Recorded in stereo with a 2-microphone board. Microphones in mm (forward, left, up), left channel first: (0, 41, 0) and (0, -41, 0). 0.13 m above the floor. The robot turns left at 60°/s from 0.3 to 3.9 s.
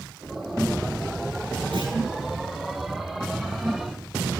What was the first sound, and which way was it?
A clunk, 85° right.